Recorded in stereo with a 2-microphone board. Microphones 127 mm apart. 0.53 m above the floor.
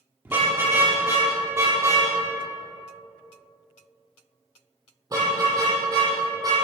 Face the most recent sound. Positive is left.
turn(degrees=-35)  # may be behind; listen again after turning